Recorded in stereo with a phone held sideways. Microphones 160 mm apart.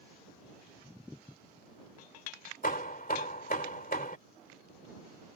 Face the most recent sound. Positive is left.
turn(degrees=55)  # may be behind; listen again after turning